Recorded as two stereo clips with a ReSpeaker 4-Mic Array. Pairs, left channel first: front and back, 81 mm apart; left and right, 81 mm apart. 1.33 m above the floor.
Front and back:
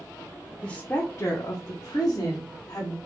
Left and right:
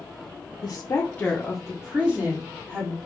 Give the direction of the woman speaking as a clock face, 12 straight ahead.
10 o'clock.